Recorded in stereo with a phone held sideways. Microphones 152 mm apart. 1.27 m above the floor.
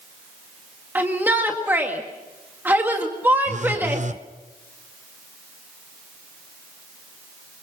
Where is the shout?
15° right (ahead or behind), 1.7 m.